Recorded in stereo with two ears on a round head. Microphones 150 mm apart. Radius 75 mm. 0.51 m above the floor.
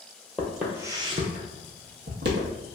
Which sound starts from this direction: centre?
Footsteps, at 0.4 s.